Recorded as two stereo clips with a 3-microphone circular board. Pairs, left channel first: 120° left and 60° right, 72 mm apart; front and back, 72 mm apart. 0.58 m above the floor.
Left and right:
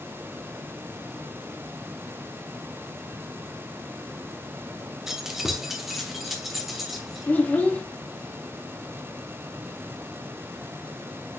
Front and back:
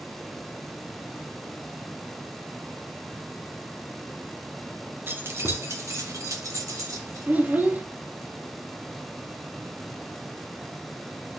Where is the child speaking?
155° left, 0.6 m.